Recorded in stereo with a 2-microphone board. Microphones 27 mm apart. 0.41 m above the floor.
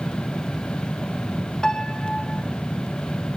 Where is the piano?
25° left (ahead or behind), 1.1 m.